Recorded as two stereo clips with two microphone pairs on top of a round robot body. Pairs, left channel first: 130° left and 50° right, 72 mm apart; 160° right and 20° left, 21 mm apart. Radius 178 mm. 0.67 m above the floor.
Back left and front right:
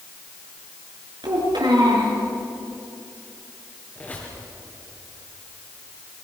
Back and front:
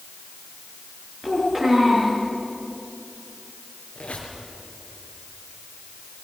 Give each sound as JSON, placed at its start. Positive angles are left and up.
{"t": 1.2, "sound": "a child speaking", "azimuth_deg": -50, "distance_m": 6.5}
{"t": 4.0, "sound": "a squeak", "azimuth_deg": -165, "distance_m": 5.0}